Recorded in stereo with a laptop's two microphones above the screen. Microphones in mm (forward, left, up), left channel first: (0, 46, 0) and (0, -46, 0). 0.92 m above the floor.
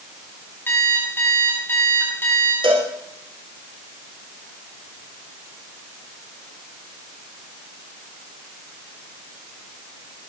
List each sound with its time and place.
0.7 s an alarm clock: 25° left (ahead or behind), 4 m
2.6 s a cowbell: 65° right (ahead or behind), 3.5 m